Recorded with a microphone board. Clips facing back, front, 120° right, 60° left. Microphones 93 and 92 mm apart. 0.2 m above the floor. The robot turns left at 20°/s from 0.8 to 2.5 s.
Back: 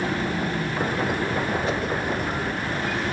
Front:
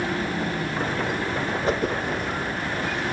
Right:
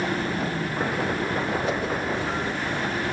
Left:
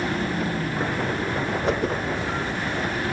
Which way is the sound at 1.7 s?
35° left.